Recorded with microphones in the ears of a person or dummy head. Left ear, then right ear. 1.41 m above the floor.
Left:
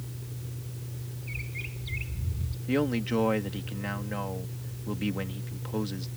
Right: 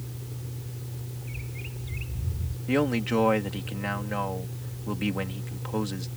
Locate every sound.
0.0 s a fan: 55° right (ahead or behind)
1.2 s a bird: 25° left (ahead or behind)
2.7 s a man speaking: 25° right (ahead or behind)